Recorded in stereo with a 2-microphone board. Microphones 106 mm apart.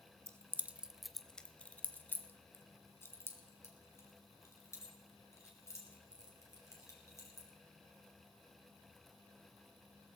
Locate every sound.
0.3 s keys jangling: 25° right (ahead or behind), 0.6 m; by 7.5 s 25° left (ahead or behind), 4.5 m